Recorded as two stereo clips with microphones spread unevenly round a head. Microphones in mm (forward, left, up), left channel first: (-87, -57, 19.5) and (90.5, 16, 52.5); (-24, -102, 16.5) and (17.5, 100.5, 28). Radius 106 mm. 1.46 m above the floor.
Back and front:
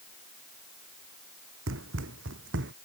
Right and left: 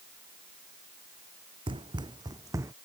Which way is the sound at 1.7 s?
10° left.